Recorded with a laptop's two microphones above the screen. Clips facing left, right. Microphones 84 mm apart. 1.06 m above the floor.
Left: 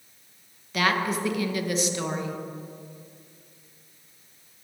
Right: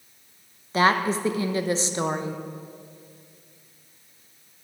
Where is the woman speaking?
30° right (ahead or behind), 0.8 m.